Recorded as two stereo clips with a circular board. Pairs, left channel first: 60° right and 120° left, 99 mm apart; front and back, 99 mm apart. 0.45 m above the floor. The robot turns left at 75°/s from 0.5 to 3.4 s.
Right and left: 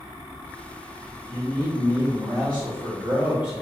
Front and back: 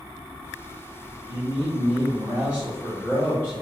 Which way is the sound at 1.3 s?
145° right.